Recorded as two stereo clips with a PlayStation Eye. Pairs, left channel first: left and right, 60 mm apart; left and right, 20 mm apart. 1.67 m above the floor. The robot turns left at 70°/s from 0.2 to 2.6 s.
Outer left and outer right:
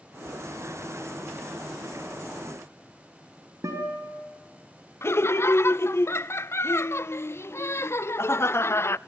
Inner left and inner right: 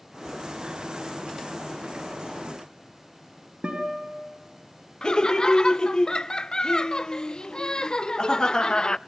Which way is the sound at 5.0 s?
45° left (ahead or behind).